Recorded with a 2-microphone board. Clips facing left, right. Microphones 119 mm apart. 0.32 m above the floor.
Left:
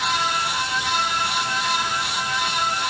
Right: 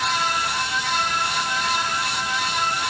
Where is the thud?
I don't hear a thud.